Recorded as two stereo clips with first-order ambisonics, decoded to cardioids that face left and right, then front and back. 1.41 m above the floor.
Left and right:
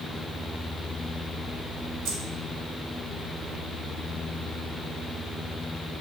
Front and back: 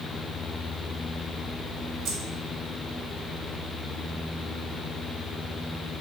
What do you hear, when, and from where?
2.0 s keys jangling: 130° right, 0.8 m